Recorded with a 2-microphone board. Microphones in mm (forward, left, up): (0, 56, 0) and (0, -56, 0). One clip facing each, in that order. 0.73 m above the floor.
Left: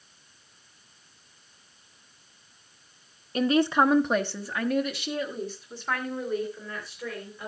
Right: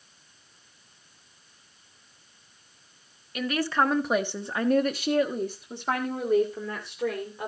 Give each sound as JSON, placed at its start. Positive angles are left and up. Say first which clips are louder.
{"t": 3.4, "sound": "a woman speaking", "louder": "left 4 dB", "side_deg": 35, "distance_m": 1.1}